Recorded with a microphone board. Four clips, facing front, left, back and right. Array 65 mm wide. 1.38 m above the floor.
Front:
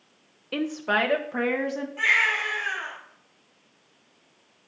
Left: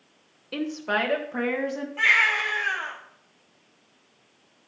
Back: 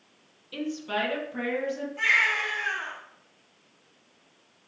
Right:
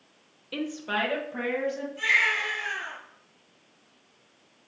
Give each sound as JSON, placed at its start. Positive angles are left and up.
{"t": 0.5, "sound": "a woman speaking", "azimuth_deg": 10, "distance_m": 1.0}
{"t": 2.0, "sound": "a baby crying", "azimuth_deg": 80, "distance_m": 5.0}